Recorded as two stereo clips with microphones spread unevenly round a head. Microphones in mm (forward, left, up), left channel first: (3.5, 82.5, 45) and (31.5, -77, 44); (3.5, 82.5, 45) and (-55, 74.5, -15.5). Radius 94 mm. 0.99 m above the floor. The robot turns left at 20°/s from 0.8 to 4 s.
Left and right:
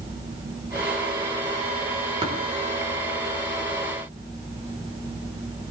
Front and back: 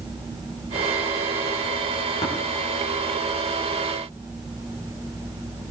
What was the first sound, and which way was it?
Tapping, 20° right.